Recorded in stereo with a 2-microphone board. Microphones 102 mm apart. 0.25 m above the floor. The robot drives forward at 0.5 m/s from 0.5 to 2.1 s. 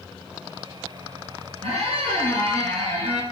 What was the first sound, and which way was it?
A squeak, 75° right (ahead or behind).